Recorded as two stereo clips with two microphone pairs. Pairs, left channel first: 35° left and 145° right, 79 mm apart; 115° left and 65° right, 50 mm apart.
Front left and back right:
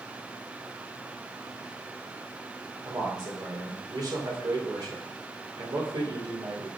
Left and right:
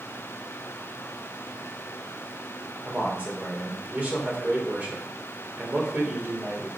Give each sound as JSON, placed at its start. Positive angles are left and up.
{"t": 2.9, "sound": "a man speaking", "azimuth_deg": -120, "distance_m": 2.5}